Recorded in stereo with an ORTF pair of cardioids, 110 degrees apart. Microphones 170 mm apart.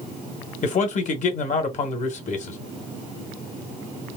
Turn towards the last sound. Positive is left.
turn(degrees=45)